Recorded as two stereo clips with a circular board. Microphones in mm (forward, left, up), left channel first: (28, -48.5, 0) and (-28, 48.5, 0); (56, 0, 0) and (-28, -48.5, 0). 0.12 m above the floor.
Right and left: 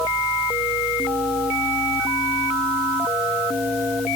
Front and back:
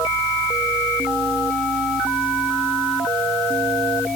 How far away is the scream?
I don't hear a scream.